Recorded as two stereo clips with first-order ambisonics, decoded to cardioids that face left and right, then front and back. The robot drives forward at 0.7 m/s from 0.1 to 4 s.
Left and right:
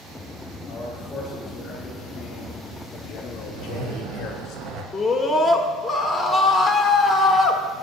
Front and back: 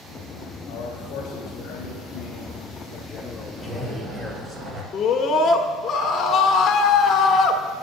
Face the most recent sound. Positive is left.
turn(degrees=15)